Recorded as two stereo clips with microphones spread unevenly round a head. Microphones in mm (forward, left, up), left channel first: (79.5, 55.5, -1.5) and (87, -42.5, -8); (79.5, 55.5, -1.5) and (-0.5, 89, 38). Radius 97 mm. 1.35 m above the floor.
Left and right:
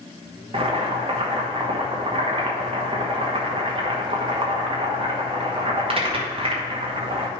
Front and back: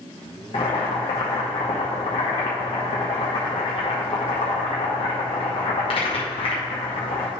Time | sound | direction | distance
0.5 | boiling | 60° right | 1.7 m